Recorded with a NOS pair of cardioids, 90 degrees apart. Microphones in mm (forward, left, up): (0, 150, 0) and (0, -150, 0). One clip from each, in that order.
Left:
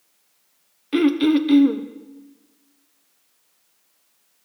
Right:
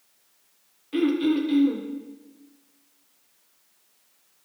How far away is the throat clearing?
About 1.1 m.